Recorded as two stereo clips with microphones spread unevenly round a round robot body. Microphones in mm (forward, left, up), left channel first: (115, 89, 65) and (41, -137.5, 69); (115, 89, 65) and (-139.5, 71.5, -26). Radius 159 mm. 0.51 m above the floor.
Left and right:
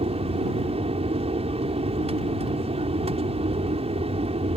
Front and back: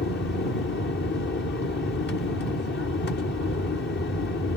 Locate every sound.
0.0 s an aircraft: 55° right